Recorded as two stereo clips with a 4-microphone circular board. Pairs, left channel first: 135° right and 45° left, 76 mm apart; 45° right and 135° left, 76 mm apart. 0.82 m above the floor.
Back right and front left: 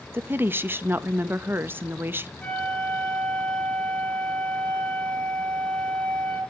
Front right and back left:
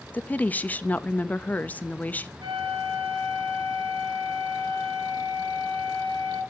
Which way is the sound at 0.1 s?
10° left.